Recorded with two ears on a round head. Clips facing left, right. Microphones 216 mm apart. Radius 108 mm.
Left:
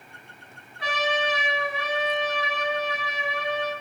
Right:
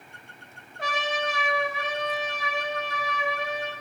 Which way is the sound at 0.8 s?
40° right (ahead or behind).